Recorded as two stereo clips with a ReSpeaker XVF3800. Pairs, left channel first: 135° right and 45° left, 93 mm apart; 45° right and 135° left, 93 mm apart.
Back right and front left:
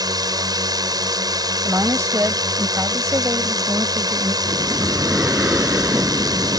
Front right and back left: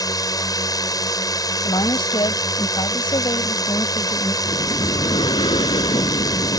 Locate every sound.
0.0 s a drone: straight ahead
1.6 s a woman speaking: 15° right
4.5 s breathing: 30° right